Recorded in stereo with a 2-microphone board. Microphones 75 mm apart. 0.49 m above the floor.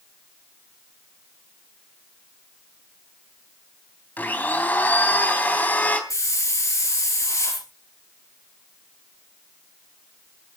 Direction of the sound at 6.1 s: 50° left (ahead or behind).